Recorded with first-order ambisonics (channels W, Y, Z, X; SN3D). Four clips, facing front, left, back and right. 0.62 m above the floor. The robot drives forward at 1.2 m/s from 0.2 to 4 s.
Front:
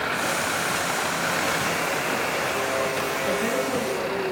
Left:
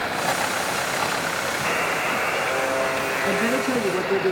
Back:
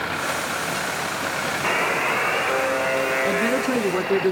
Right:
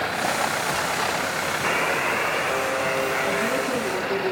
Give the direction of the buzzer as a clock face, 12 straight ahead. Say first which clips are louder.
Right 1 dB, back 4 dB; 5 o'clock.